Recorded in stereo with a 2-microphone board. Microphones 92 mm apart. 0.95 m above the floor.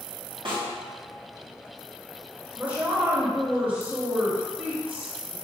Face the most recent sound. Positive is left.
turn(degrees=-15)  # may be behind; listen again after turning